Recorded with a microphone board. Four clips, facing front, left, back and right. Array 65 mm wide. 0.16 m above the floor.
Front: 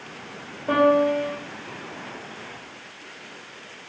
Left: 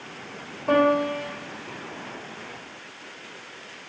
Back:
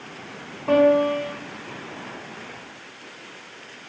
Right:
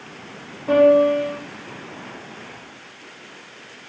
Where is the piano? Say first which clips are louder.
Right 7 dB, back 1 dB; 170° left, 2.0 m.